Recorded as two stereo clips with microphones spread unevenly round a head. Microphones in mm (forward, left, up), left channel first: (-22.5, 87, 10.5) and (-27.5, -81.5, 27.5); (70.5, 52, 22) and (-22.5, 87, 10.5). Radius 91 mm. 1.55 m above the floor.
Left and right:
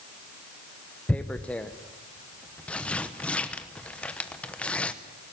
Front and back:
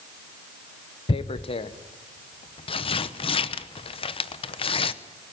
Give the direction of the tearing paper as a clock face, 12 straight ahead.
12 o'clock.